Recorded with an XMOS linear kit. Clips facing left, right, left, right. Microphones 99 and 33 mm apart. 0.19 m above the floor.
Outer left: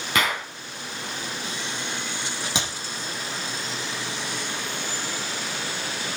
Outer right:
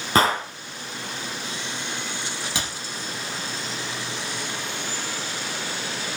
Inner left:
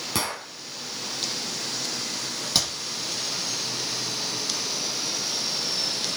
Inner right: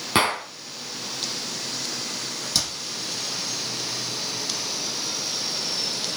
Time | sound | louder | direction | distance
0.1 | a gunshot | outer right 6 dB, inner right 9 dB | 35° right (ahead or behind) | 1.5 m
2.5 | a clap | outer left 2 dB, inner left 1 dB | 20° left (ahead or behind) | 6 m